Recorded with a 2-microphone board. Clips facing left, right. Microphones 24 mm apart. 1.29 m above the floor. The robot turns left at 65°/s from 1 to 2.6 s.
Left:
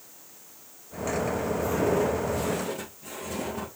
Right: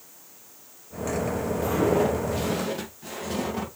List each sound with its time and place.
1.6 s footsteps: 60° right (ahead or behind), 2.5 m; by 3.7 s 55° right (ahead or behind), 3.5 m